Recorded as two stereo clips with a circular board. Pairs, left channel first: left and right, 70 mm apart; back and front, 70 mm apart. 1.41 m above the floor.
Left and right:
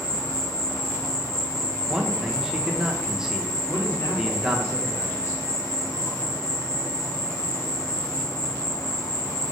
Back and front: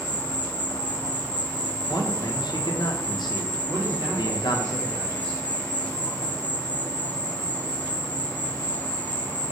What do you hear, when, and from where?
0.0 s an insect: 120° left, 2 m
1.9 s a man speaking: 170° right, 1.2 m
3.7 s a man speaking: 45° left, 1.8 m